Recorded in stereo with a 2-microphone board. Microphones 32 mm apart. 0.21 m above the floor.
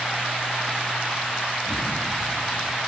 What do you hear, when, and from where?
1.7 s a gunshot: 10° left (ahead or behind)